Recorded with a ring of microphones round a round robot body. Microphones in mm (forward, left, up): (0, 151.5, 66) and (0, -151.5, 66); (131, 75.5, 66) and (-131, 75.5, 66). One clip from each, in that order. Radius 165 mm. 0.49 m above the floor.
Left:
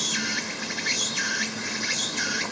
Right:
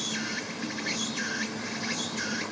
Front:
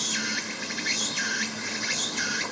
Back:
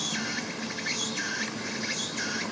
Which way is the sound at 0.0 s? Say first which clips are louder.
Left 6 dB, front 3 dB; 35° left.